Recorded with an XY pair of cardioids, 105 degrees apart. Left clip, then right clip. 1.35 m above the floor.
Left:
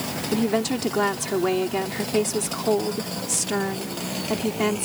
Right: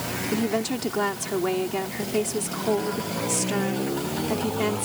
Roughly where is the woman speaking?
Ahead.